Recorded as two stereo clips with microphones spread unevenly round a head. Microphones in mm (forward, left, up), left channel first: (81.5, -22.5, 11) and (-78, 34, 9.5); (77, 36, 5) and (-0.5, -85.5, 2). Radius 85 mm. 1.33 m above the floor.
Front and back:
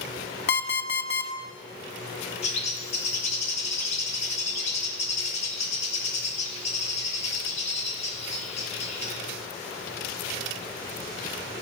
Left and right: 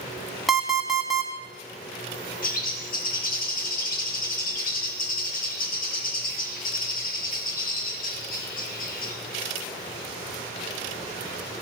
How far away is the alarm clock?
About 1.3 m.